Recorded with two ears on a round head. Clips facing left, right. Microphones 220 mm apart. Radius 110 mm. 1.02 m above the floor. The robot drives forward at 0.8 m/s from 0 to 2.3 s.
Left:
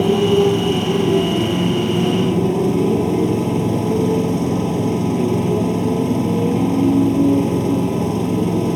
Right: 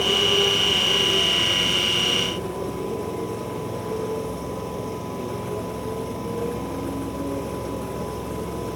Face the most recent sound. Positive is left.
turn(degrees=70)  # may be behind; listen again after turning